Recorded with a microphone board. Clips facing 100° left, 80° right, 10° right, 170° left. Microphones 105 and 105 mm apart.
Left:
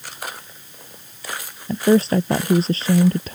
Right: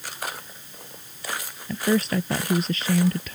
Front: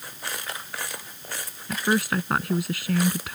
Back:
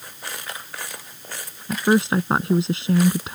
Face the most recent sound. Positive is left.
turn(degrees=125)